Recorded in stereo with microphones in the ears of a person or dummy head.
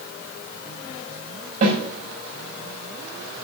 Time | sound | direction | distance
1.6 | a snare drum | 45° right (ahead or behind) | 6 m